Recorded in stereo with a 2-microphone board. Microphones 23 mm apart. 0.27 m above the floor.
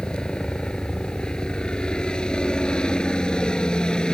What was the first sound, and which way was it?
A helicopter, 45° left (ahead or behind).